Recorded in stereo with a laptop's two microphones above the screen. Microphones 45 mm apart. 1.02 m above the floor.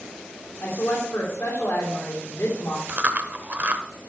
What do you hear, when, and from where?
0.6 s a woman speaking: 70° left (ahead or behind), 2.5 m
2.9 s chewing: 40° right (ahead or behind), 1.0 m